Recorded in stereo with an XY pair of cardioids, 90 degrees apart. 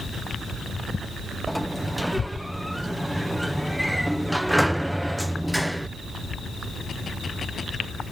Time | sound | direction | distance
1.5 | a sliding door | straight ahead | ?